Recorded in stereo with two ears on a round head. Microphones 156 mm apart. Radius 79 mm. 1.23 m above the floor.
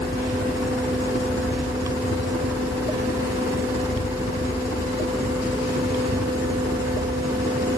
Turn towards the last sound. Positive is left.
turn(degrees=65)  # may be behind; listen again after turning